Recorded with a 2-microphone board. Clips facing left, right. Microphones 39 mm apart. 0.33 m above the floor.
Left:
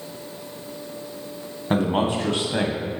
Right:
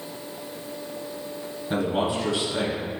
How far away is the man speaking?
About 2 m.